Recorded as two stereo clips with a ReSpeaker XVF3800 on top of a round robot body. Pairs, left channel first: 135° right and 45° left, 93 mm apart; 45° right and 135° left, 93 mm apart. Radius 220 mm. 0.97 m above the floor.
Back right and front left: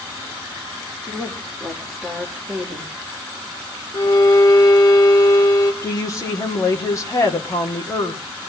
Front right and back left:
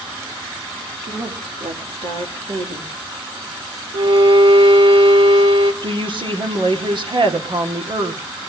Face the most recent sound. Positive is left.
turn(degrees=170)